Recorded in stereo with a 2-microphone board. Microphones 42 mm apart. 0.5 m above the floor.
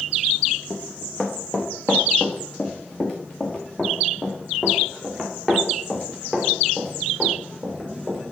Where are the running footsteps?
40° left (ahead or behind), 2.5 m; by 8.3 s centre (ahead or behind), 5.5 m.